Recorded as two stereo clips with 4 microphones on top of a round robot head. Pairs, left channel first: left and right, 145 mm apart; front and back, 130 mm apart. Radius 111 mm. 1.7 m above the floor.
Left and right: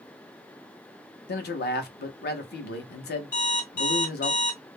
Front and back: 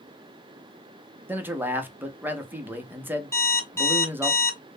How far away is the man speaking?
About 0.8 m.